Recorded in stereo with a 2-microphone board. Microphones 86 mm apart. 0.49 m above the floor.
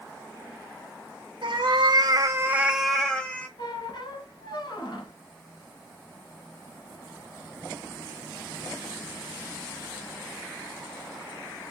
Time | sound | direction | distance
1.4 | a cat meowing | 75° right (ahead or behind) | 1.1 m
3.6 | a squeak | 60° left (ahead or behind) | 1.6 m